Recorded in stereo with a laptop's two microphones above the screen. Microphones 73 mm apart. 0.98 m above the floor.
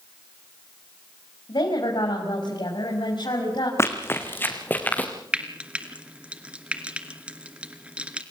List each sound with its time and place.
1.5 s a woman speaking: 85° left, 5.5 m; by 3.7 s 80° left, 6 m
3.8 s running footsteps: 40° left (ahead or behind), 3.5 m; by 5.1 s 20° left (ahead or behind), 5 m
5.3 s frying: 15° right (ahead or behind), 2.5 m